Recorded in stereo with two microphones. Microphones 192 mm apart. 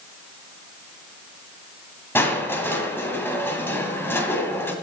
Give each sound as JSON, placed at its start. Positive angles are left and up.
{"t": 2.1, "sound": "crushing", "side_deg": 10, "distance_m": 1.9}